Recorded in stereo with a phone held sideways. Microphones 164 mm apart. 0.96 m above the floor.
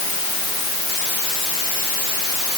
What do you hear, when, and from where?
Only background noise.